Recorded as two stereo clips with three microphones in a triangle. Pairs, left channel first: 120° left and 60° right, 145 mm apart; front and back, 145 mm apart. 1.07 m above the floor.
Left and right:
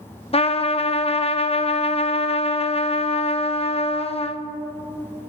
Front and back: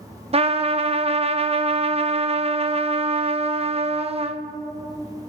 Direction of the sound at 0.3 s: 150° left.